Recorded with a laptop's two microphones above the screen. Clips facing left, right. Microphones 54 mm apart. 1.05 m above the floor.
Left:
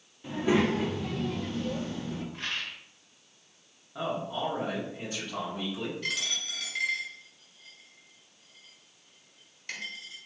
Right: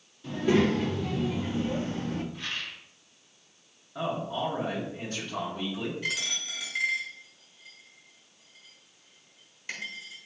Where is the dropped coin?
10° right (ahead or behind), 1.3 m.